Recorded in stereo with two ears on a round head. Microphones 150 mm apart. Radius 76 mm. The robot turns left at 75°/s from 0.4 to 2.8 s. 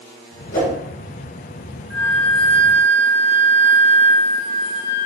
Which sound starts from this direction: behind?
A flute, at 1.9 s.